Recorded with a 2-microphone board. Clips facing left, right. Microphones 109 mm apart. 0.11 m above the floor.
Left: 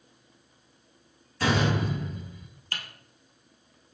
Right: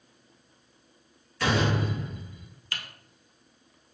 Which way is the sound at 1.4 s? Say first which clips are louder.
Even; 30° left (ahead or behind).